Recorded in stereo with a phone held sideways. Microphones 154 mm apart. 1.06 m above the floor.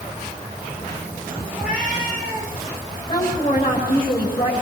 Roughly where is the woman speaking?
Left.